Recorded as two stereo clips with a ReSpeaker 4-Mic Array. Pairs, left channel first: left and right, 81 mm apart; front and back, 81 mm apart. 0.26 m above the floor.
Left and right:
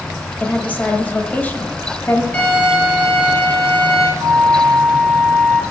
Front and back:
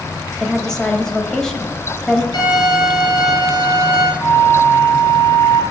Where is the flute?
55° right, 3 m.